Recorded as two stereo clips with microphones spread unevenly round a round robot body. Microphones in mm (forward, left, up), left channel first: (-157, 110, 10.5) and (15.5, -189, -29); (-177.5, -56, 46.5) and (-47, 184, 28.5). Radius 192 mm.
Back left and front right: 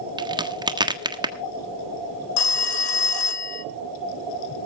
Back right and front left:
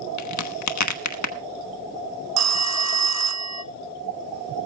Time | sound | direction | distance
0.2 | a crack | 140° right | 1.5 m
2.4 | a phone ringing | 95° left | 0.6 m